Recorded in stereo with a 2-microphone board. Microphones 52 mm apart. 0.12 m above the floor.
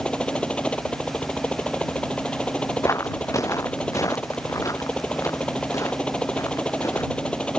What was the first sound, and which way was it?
A helicopter, 20° left (ahead or behind).